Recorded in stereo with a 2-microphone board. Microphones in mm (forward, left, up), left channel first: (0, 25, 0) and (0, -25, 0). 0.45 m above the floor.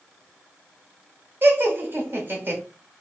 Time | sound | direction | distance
1.4 | laughter | 50° right (ahead or behind) | 1.2 m